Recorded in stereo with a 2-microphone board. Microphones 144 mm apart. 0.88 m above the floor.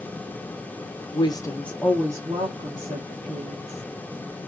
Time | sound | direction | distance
1.1 | a woman speaking | 35° left (ahead or behind) | 0.6 m